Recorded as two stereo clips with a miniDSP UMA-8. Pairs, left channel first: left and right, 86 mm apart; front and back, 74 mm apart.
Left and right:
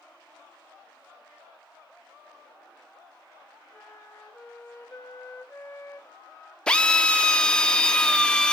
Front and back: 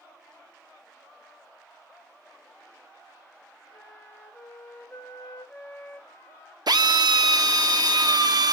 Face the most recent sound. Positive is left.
turn(degrees=170)